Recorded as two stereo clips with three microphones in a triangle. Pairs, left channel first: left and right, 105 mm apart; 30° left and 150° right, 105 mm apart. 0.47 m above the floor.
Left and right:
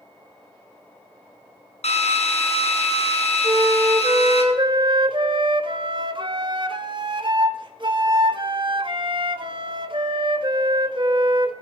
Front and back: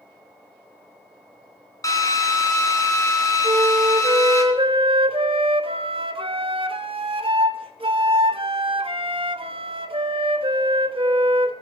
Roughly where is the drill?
Left.